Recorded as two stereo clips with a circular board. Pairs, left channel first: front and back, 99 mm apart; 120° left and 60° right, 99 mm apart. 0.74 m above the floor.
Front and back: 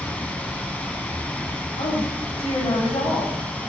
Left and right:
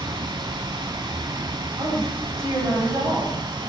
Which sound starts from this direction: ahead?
A woman speaking, at 1.8 s.